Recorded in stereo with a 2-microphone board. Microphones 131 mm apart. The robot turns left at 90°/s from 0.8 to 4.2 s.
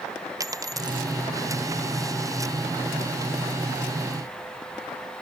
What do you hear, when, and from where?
0.4 s a dropped coin: 25° right (ahead or behind); by 1.1 s 50° right (ahead or behind)